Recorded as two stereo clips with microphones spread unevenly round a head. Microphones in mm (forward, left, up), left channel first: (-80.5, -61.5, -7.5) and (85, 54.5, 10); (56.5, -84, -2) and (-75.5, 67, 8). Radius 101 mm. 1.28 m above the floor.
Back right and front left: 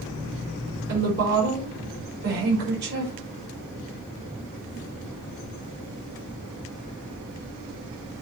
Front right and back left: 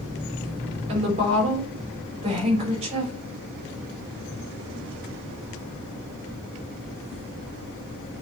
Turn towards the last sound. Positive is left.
turn(degrees=70)